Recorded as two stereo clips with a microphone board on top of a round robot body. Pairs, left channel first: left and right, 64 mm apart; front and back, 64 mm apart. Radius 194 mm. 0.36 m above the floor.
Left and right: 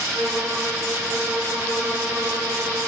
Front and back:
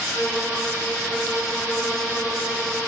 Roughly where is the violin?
Right.